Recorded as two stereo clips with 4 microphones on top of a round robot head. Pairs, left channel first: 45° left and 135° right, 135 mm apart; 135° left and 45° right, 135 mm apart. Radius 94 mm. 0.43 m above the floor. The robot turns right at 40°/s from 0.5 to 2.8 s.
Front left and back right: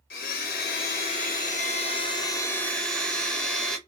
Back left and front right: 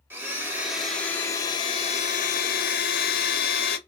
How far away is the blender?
About 0.6 m.